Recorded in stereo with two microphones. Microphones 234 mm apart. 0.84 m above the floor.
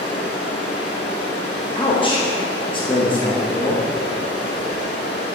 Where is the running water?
45° left (ahead or behind), 2 m.